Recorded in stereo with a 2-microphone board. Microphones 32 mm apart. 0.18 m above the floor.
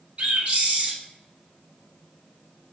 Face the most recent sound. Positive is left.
turn(degrees=-50)  # may be behind; listen again after turning